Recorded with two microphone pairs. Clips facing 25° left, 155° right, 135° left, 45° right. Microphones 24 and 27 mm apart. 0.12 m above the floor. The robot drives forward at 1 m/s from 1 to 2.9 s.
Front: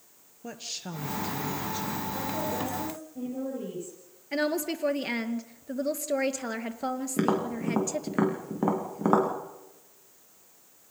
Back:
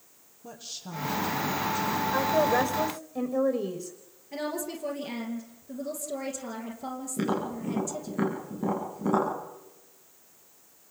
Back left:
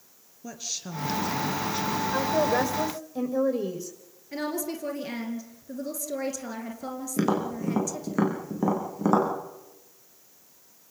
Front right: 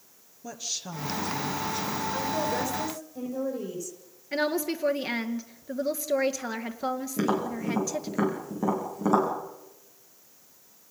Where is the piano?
I don't hear a piano.